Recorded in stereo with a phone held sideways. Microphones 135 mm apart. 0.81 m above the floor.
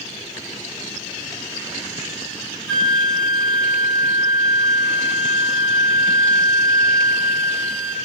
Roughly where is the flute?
Centre.